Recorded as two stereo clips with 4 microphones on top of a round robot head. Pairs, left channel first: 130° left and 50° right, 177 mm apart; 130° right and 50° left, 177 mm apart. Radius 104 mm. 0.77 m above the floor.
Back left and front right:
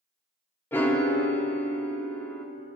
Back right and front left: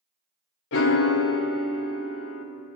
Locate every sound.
0.7 s a piano: 150° right, 0.6 m